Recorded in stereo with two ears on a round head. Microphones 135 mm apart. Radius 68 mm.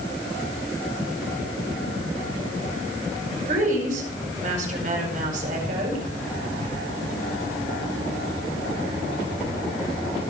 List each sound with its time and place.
3.5 s a woman speaking: 60° right (ahead or behind), 5 m